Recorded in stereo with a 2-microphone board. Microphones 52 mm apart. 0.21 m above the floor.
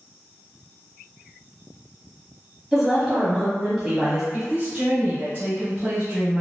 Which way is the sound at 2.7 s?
5° right (ahead or behind).